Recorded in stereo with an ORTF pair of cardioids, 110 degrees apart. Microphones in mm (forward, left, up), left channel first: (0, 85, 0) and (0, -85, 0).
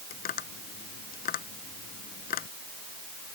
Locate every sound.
0.1 s tapping: 60° left